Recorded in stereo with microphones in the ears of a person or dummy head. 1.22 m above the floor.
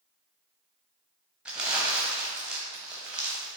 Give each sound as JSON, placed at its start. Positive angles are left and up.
{"t": 1.4, "sound": "crumpling", "side_deg": -5, "distance_m": 1.0}